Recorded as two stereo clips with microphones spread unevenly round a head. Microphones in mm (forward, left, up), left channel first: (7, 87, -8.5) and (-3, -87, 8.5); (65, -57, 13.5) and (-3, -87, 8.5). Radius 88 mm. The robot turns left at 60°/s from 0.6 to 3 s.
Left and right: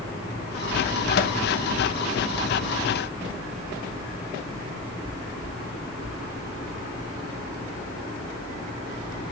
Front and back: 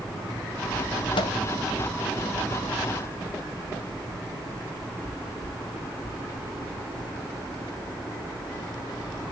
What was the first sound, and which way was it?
A microwave, 50° left.